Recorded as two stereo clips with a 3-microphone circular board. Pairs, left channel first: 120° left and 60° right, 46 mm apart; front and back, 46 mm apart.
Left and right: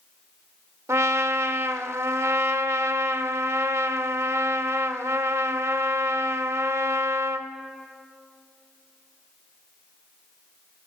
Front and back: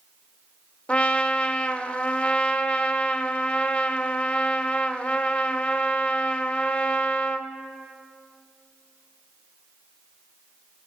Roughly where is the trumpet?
Ahead right.